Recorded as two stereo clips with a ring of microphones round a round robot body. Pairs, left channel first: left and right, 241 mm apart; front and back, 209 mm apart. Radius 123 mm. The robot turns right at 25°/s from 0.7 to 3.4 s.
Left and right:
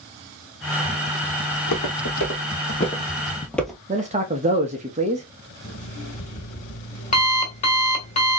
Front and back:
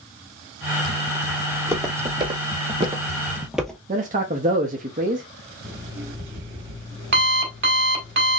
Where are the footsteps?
100° left, 1.8 m; by 3.8 s 25° right, 0.7 m.